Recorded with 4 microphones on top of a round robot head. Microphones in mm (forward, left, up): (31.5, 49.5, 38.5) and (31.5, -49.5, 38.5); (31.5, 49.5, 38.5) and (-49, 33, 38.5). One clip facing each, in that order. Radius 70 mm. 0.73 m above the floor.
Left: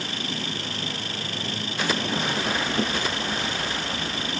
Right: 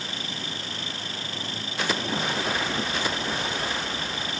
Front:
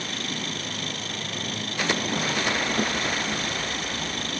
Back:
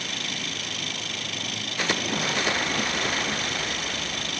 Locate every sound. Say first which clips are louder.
0.0 s an engine running: left 4 dB, front 2 dB; 65° left